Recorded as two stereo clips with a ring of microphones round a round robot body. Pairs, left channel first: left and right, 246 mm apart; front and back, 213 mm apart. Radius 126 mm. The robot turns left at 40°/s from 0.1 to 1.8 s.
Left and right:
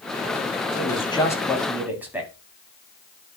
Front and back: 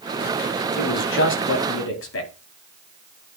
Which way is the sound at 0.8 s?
35° left.